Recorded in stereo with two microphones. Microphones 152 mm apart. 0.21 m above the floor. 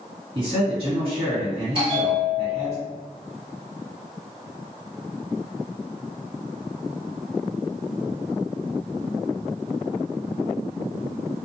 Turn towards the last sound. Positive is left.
turn(degrees=-35)  # may be behind; listen again after turning